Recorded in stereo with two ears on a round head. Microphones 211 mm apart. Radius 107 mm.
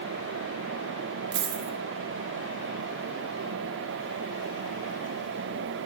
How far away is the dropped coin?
About 1.1 m.